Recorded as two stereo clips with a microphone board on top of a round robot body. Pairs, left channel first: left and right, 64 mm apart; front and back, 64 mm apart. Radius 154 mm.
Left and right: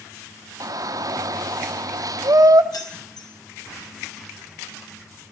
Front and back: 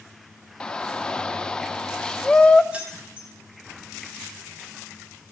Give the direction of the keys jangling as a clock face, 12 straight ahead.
8 o'clock.